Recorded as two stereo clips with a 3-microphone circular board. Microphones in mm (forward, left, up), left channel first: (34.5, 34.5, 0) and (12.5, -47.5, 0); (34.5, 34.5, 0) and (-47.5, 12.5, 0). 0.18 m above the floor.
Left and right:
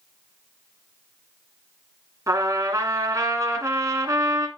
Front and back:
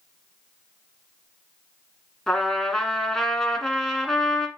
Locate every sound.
2.3 s a trumpet: 70° right, 1.4 m